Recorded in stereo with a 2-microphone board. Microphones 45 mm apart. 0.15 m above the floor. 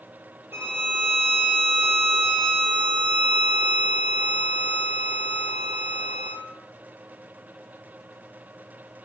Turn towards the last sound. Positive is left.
turn(degrees=-60)  # may be behind; listen again after turning